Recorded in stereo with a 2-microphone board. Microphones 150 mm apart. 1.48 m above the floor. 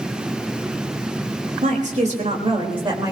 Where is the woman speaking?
60° right (ahead or behind), 3.5 m; by 3.1 s 25° right (ahead or behind), 3 m.